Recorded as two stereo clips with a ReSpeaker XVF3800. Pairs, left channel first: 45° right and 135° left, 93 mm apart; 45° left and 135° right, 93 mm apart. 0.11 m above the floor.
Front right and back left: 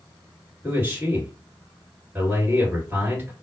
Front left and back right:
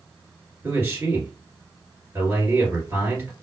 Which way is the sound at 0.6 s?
175° right.